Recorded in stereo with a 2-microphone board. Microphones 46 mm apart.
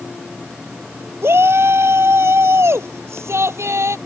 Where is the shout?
60° right (ahead or behind); by 4.0 s 70° right (ahead or behind).